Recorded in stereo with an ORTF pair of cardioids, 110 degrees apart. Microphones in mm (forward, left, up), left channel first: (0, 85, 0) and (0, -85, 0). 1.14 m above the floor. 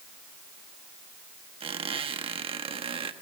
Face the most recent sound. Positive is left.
turn(degrees=-30)